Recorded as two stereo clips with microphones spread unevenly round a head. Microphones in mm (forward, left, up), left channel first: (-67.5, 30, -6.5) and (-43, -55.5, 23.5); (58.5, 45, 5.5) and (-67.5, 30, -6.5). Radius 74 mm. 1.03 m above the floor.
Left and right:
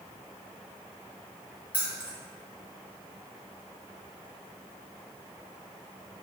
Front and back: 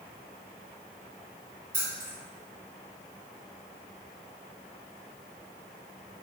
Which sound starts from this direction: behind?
Keys jangling, at 1.7 s.